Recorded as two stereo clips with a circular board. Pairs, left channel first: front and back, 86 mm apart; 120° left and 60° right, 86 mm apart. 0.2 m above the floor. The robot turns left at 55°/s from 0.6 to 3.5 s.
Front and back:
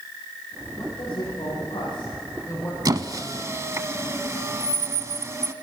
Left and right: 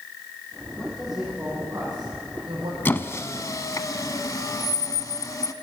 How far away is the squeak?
About 0.7 m.